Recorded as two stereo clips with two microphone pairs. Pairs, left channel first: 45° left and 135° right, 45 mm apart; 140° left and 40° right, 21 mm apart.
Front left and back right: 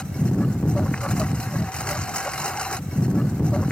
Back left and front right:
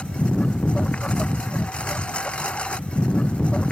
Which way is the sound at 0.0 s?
115° left.